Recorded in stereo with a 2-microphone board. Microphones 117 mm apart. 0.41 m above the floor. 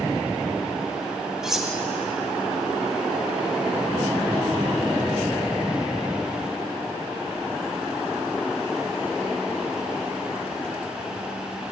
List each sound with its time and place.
1.4 s cutlery clinking: 5° right (ahead or behind), 0.8 m